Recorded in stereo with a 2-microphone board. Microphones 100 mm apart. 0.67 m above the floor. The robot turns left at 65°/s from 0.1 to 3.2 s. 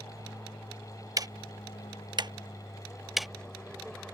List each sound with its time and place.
0.0 s an aircraft: 20° right (ahead or behind); by 4.1 s 10° left (ahead or behind)
1.2 s ticking: 35° right (ahead or behind); by 3.3 s centre (ahead or behind)